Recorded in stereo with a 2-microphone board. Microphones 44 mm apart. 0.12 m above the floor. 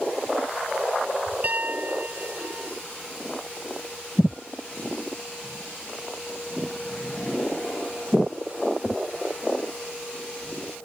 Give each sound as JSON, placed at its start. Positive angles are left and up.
{"t": 1.4, "sound": "a piano", "side_deg": -40}